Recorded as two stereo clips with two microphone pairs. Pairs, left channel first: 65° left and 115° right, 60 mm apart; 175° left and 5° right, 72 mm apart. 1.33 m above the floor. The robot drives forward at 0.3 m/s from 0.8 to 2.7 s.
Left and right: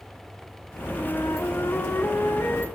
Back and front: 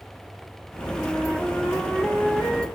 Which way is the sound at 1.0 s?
100° left.